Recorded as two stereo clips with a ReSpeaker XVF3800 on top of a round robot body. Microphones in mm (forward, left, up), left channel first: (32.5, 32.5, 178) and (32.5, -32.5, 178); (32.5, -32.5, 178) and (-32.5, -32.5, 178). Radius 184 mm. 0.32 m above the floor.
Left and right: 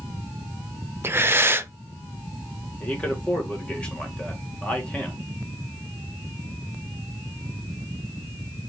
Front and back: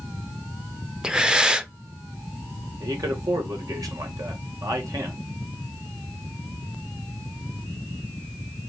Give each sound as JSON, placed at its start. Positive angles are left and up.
{"t": 1.0, "sound": "breathing", "azimuth_deg": -110, "distance_m": 0.7}
{"t": 2.8, "sound": "a man speaking", "azimuth_deg": 160, "distance_m": 1.8}